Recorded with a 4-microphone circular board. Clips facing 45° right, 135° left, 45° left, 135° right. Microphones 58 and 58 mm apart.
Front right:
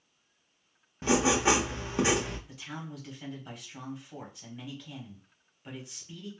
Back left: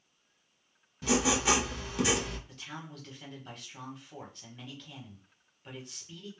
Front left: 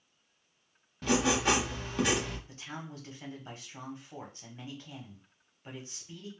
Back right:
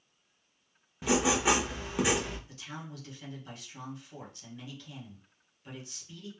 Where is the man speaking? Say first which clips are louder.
Front right 3 dB, front left 1 dB; 30° left, 1.2 m.